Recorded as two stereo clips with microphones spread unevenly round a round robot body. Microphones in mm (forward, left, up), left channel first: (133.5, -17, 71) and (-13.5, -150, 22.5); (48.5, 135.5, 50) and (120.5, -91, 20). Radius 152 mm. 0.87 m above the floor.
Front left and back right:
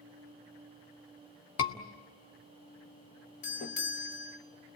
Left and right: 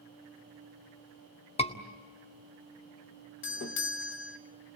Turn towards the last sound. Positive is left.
turn(degrees=95)